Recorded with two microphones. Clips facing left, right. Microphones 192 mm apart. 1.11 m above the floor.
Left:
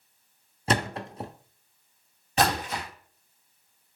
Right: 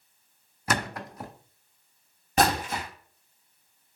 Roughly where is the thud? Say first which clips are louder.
Left 3 dB; left.